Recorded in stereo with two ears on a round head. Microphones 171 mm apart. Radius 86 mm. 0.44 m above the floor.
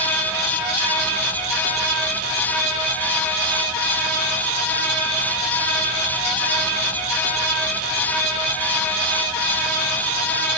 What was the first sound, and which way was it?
Only background noise.